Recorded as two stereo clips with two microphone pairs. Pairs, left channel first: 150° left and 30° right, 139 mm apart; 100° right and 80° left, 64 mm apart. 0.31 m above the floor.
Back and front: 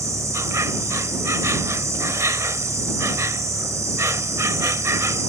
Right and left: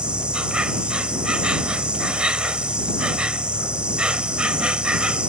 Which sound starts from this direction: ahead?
An insect, at 0.0 s.